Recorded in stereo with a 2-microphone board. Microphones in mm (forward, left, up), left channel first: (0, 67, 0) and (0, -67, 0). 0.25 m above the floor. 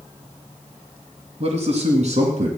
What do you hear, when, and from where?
1.4 s a man speaking: 50° right (ahead or behind), 2.5 m; by 2.5 s 60° right (ahead or behind), 4 m